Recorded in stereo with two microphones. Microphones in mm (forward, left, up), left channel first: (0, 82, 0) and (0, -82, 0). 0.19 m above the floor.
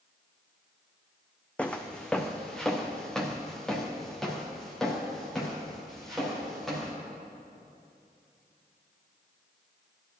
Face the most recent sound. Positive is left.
turn(degrees=0)  # may be behind; listen again after turning